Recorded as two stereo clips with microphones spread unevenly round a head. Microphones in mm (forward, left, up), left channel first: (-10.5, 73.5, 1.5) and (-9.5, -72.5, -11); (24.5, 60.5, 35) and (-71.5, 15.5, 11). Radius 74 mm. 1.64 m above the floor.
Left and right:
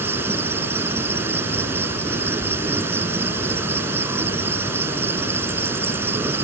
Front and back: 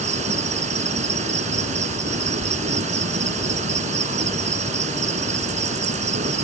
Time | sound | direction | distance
0.0 | an insect | 165° right | ?